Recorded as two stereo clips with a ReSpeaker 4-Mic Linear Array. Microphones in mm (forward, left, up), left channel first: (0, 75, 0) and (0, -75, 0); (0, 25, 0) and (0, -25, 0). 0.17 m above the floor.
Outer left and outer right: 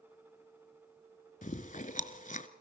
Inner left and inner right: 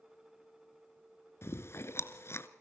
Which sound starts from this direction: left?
Chewing, at 1.4 s.